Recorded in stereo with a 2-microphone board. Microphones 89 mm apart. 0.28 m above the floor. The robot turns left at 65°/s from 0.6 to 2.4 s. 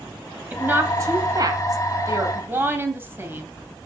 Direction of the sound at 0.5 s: 20° right (ahead or behind).